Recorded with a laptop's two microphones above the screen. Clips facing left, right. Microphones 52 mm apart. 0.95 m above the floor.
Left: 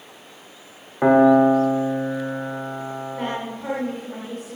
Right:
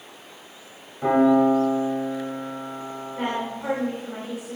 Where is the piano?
75° left (ahead or behind), 2 m.